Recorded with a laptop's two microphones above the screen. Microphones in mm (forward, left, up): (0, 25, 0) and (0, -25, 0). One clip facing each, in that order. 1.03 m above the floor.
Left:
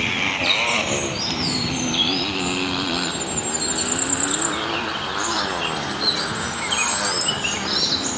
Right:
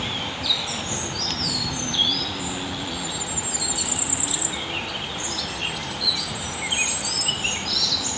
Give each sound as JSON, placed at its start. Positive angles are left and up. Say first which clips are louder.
{"t": 0.0, "sound": "a motorcycle", "louder": "left 7 dB", "side_deg": 70}